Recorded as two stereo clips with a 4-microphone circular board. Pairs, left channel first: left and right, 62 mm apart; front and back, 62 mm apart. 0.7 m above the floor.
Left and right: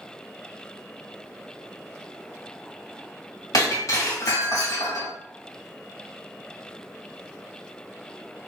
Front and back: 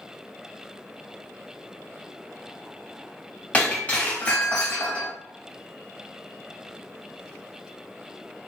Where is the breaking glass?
65° left, 1.8 m.